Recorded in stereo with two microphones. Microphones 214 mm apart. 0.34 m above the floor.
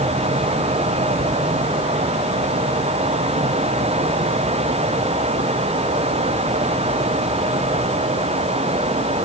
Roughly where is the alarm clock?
I don't hear an alarm clock.